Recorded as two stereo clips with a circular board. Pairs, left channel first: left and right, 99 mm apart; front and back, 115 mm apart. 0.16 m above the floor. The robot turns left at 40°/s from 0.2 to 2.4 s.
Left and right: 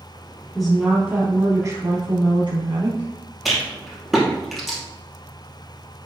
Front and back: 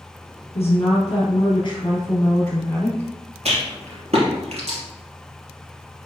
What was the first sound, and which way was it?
A woman speaking, 5° left.